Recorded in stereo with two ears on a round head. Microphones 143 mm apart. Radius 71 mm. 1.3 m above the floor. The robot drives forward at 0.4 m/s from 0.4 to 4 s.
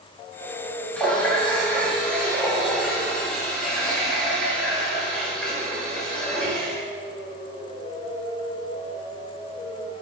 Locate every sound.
1.0 s a running tap: 10° left (ahead or behind), 2 m; by 6.8 s 5° left (ahead or behind), 3.5 m